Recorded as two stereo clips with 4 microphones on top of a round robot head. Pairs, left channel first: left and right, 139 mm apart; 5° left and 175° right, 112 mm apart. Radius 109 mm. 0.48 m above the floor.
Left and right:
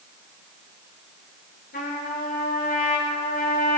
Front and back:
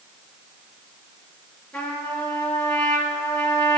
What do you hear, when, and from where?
1.7 s a trumpet: 85° left, 7.5 m